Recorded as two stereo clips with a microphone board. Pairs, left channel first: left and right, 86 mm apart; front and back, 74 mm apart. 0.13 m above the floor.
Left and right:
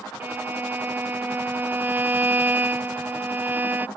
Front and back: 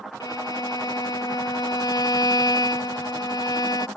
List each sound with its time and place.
0.2 s a violin: 25° right